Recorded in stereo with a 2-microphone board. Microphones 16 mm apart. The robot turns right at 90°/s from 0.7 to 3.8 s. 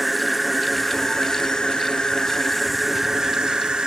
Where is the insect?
Straight ahead, 1.4 m; by 3.9 s 80° right, 1.4 m.